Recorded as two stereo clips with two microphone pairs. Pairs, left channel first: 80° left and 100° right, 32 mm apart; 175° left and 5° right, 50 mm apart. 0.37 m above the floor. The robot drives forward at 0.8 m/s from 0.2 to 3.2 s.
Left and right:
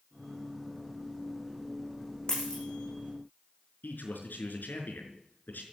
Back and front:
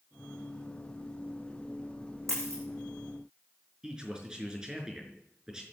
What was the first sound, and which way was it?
A dropped coin, 15° left.